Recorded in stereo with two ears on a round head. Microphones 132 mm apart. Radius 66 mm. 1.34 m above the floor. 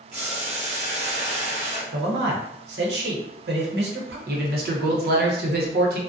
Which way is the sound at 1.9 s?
85° right.